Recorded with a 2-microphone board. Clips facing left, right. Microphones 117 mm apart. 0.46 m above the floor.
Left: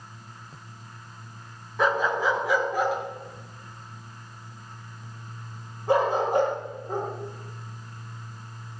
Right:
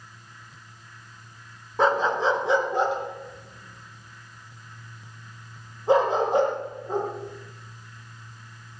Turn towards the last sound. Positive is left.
turn(degrees=-20)  # may be behind; listen again after turning